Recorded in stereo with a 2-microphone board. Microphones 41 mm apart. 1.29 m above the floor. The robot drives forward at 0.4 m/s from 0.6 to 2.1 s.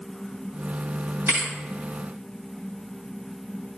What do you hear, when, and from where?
1.3 s a thud: 70° right (ahead or behind), 2.5 m